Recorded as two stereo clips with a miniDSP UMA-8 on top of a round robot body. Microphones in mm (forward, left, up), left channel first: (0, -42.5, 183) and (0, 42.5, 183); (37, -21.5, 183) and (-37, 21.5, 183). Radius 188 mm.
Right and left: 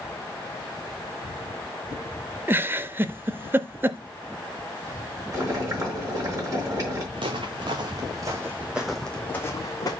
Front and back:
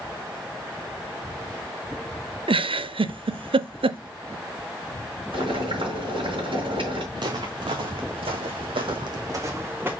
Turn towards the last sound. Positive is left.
turn(degrees=-140)